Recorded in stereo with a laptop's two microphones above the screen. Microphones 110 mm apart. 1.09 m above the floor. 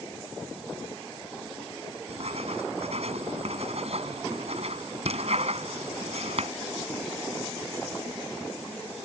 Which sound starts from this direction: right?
Writing, at 2.1 s.